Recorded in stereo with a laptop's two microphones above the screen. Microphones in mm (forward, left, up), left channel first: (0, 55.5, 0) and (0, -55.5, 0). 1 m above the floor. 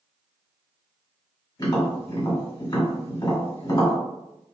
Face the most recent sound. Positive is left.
turn(degrees=35)  # may be behind; listen again after turning